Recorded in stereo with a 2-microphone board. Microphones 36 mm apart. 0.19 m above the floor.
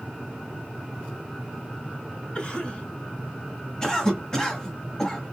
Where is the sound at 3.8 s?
15° left (ahead or behind), 1.3 m.